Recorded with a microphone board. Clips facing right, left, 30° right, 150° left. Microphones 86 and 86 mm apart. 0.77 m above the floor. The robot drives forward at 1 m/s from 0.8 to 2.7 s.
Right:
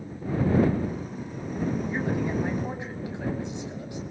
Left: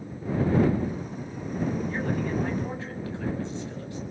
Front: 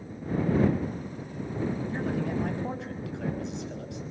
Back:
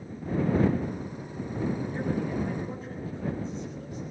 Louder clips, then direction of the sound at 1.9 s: Right 1 dB, even; 15° right.